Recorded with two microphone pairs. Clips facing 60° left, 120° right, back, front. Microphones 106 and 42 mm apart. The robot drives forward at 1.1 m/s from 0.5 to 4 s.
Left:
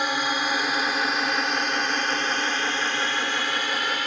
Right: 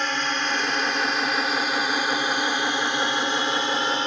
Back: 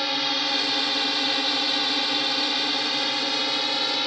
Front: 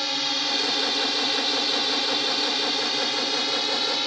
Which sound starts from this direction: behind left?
A drone, at 0.0 s.